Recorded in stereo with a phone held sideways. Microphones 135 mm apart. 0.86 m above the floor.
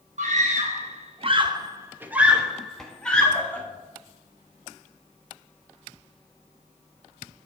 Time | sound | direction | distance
0.2 | a scream | 60° right (ahead or behind) | 1.0 m